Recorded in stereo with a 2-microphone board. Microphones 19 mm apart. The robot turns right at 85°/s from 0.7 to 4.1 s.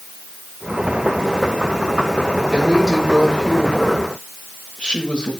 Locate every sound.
2.5 s a woman speaking: 65° right, 7.5 m; by 5.3 s 70° left, 7.5 m